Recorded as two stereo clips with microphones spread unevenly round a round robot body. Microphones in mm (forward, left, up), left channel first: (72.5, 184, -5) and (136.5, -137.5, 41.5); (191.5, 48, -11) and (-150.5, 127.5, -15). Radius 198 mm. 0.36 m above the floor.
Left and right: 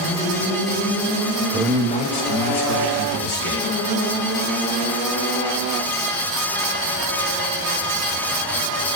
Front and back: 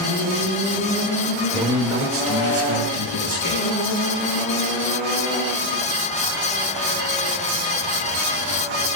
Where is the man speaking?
120° right, 0.9 m; by 3.7 s 115° left, 3 m.